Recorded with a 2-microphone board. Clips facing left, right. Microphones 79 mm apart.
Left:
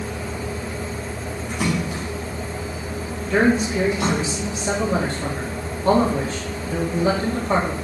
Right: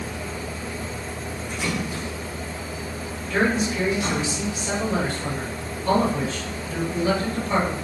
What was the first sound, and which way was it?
A splash, 80° left.